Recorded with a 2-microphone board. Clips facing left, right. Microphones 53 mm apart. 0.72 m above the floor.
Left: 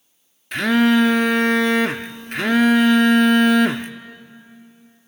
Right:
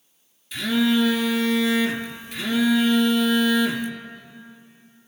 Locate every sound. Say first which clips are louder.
0.5 s a phone buzzing: left 5 dB; 50° left (ahead or behind), 0.5 m